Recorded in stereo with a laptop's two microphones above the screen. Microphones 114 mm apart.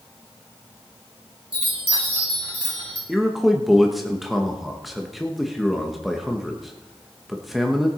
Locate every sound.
1.5 s a chime: 55° right (ahead or behind), 5.5 m
3.1 s a man speaking: centre (ahead or behind), 1.2 m